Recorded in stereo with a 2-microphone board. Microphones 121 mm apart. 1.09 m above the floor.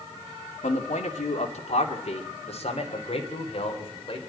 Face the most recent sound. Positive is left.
turn(degrees=45)  # may be behind; listen again after turning